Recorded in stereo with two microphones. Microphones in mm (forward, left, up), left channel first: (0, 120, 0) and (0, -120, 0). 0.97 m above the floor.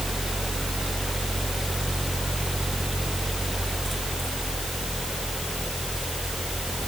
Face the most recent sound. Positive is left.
No sound to turn to.